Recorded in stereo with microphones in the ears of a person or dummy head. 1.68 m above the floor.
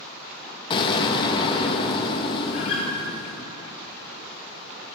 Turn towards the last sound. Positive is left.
turn(degrees=45)  # may be behind; listen again after turning